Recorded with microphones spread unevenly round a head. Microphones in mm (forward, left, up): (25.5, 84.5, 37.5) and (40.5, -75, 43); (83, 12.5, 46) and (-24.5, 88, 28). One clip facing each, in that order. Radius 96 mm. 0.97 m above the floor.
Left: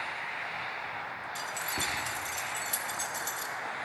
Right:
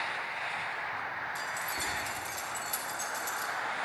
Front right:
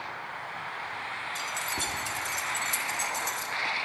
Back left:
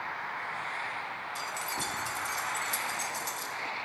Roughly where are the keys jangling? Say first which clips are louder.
Left 1 dB, even; ahead left.